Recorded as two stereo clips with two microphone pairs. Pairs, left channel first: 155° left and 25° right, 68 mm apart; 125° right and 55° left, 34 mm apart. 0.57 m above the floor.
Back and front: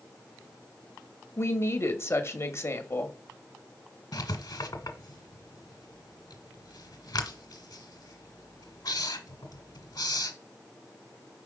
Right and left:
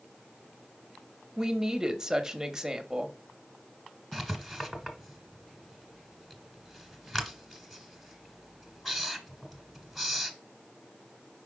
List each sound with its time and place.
1.4 s a woman speaking: 125° left, 1.0 m
4.1 s writing: 150° left, 1.2 m